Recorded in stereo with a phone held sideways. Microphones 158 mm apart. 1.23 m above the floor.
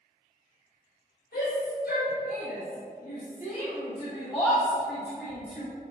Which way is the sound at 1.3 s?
80° left.